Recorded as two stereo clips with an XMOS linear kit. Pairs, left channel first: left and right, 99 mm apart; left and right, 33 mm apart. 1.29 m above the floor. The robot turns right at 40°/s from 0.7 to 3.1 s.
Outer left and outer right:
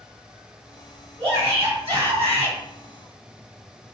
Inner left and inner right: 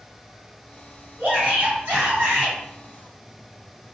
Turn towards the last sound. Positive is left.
turn(degrees=-45)